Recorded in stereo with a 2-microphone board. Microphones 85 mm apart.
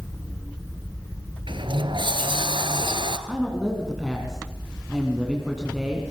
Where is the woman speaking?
5° right (ahead or behind), 2.5 m.